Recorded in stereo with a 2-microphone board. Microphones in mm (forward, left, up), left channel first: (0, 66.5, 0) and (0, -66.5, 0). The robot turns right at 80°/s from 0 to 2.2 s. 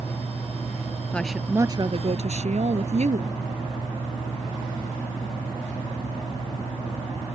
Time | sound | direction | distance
1.1 | a woman speaking | 170° left | ?